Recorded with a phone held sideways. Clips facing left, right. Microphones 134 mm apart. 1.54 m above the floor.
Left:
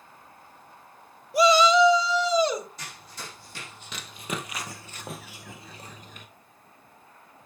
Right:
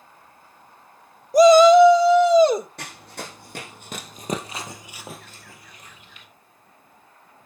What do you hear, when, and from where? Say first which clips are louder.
1.3 s a shout: right 9 dB; 40° right (ahead or behind), 0.5 m; by 2.7 s 50° right (ahead or behind), 1.8 m
2.8 s running footsteps: right 6 dB; 65° right (ahead or behind), 3.5 m; by 6.3 s 45° left (ahead or behind), 2 m